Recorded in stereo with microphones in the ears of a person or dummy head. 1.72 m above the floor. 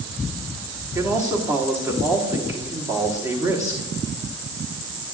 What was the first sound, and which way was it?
A man speaking, 10° right (ahead or behind).